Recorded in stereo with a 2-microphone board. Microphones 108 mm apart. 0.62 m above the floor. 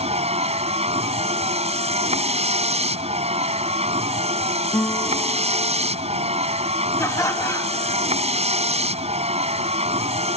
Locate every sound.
0.0 s a vehicle: 75° right (ahead or behind)
4.7 s a guitar: 10° left (ahead or behind)
7.0 s laughter: 25° left (ahead or behind)